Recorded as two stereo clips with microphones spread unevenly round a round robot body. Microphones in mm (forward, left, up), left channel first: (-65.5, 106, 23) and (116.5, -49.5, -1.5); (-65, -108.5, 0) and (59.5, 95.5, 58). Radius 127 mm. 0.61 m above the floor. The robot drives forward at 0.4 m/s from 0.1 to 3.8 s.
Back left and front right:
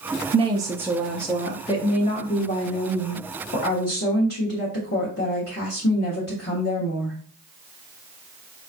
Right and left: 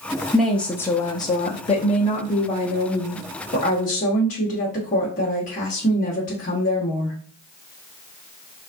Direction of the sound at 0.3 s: 55° right.